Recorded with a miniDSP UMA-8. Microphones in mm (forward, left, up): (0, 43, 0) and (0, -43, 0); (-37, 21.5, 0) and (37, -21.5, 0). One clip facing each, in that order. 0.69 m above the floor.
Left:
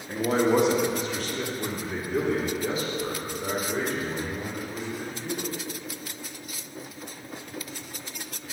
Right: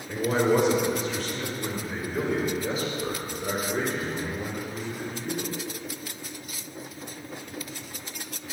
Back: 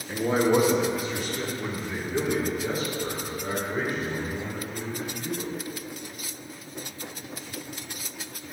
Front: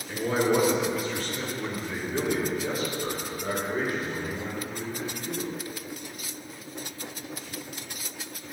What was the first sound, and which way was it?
A man speaking, 100° left.